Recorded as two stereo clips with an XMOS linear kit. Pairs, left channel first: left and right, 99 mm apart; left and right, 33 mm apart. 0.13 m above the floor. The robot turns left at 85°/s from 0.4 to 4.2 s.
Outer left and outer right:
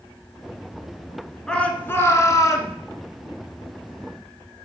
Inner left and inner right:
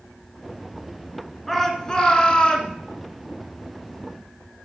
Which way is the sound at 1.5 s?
170° left.